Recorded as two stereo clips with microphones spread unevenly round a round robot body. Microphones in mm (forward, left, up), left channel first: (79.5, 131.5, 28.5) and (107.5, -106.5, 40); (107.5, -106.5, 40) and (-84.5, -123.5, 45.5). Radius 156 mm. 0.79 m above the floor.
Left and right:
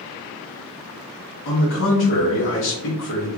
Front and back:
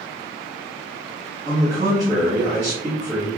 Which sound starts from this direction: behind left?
A man speaking, at 1.4 s.